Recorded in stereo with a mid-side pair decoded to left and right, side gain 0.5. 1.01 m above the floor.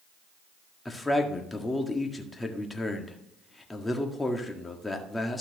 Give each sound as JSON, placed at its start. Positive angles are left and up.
{"t": 0.8, "sound": "a man speaking", "azimuth_deg": 15, "distance_m": 1.7}